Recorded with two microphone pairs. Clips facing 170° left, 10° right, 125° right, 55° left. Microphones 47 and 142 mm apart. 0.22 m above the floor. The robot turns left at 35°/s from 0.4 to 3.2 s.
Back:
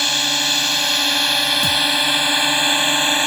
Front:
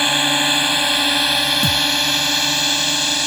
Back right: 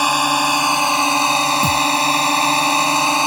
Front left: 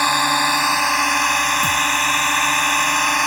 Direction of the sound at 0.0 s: 60° right.